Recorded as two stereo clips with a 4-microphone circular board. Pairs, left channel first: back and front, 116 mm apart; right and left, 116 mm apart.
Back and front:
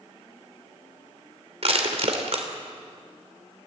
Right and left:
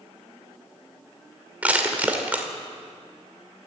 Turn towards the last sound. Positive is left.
turn(degrees=15)